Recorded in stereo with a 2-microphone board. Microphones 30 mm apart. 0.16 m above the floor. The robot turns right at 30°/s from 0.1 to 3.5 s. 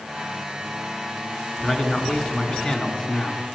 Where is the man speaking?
55° left, 1.8 m; by 3.4 s 110° left, 1.8 m.